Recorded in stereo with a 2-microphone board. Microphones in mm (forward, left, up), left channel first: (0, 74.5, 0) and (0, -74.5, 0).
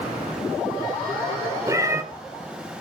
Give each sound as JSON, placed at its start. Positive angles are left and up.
{"t": 1.7, "sound": "a cat meowing", "side_deg": -20, "distance_m": 0.6}